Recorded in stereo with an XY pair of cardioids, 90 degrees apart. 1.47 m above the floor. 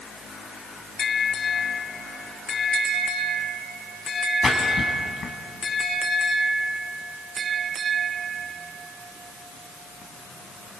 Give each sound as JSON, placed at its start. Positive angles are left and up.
{"t": 4.4, "sound": "a splash", "azimuth_deg": 50, "distance_m": 4.5}